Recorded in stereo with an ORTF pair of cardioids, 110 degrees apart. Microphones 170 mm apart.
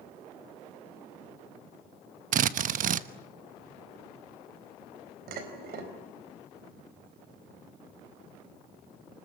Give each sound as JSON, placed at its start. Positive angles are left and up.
{"t": 2.3, "sound": "a drill", "azimuth_deg": -50, "distance_m": 1.1}
{"t": 5.3, "sound": "dishes clattering", "azimuth_deg": -65, "distance_m": 4.5}